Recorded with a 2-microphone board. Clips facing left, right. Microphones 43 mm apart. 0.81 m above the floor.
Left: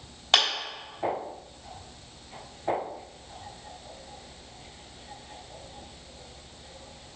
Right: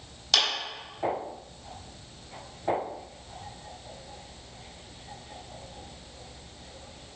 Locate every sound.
0.3 s a clap: 30° left (ahead or behind), 3 m